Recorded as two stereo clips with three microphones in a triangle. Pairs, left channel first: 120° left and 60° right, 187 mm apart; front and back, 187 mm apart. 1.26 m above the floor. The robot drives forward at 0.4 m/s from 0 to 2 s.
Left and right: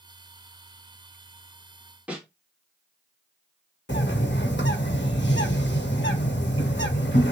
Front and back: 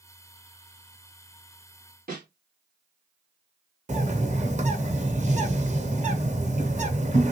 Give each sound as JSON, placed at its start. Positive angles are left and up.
{"t": 2.1, "sound": "a snare drum", "azimuth_deg": -145, "distance_m": 1.4}
{"t": 3.9, "sound": "a bird", "azimuth_deg": 130, "distance_m": 0.8}